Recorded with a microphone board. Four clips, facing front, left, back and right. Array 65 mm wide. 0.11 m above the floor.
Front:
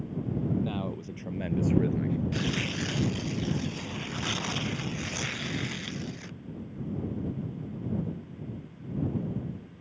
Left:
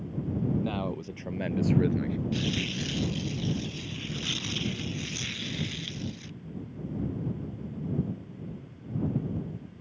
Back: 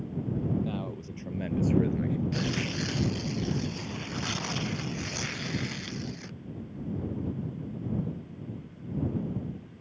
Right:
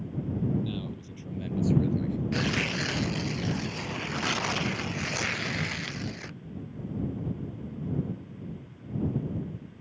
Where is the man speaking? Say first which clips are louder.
Left 4 dB, front 1 dB; 80° left; by 2.2 s 100° left.